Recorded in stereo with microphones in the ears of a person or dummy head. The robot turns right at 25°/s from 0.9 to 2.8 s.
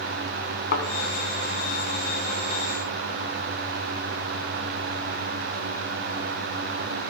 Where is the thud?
50° left (ahead or behind), 2 m.